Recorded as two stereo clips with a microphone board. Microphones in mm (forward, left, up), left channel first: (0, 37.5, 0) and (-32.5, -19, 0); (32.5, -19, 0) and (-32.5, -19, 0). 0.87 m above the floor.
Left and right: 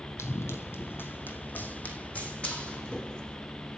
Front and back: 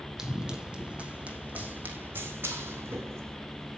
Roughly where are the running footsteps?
Left.